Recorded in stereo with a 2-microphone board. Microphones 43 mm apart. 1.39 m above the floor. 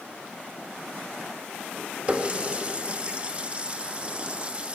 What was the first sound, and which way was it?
A running tap, 30° right (ahead or behind).